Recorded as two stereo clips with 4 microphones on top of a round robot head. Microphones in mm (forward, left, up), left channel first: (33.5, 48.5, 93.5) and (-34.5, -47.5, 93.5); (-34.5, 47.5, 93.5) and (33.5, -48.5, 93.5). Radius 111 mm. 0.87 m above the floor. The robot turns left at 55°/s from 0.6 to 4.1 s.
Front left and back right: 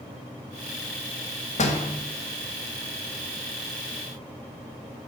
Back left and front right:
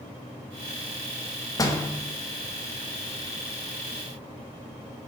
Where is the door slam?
70° left, 1.2 m; by 1.9 s 50° left, 1.2 m.